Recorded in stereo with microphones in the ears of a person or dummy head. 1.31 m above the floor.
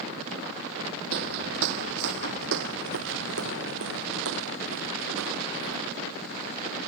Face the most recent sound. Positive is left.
turn(degrees=-75)  # may be behind; listen again after turning